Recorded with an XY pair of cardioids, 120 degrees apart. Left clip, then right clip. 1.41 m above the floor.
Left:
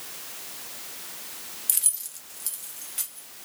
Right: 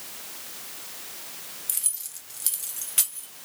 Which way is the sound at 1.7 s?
25° left.